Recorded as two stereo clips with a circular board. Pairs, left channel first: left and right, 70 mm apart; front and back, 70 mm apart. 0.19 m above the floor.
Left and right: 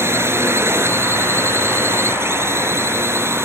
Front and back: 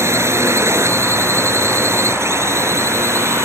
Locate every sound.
0.0 s a drone: 135° right